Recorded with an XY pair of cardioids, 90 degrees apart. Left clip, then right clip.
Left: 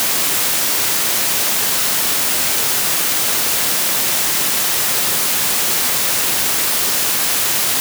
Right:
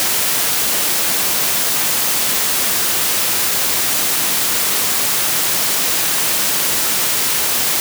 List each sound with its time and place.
Only background noise.